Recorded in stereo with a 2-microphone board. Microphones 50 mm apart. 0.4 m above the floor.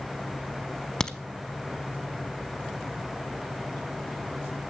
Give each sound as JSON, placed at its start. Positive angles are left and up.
{"t": 1.0, "sound": "a crack", "side_deg": 15, "distance_m": 0.9}